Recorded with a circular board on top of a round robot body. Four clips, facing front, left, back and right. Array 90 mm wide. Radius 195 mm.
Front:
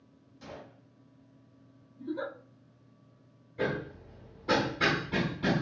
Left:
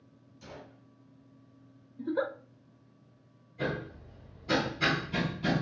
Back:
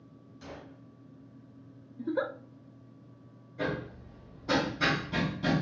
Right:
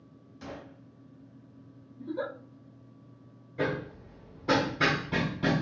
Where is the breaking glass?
No breaking glass in this recording.